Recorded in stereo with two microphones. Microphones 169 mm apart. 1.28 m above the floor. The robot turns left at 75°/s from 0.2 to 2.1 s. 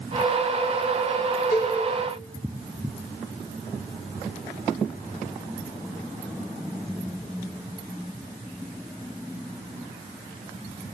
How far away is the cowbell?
About 2.5 m.